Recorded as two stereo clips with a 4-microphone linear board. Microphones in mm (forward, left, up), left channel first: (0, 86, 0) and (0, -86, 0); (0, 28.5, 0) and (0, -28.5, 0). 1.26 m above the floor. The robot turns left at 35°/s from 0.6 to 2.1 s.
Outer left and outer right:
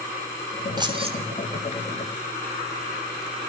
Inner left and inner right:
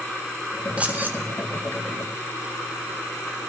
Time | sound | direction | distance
0.8 | keys jangling | 25° right (ahead or behind) | 3.5 m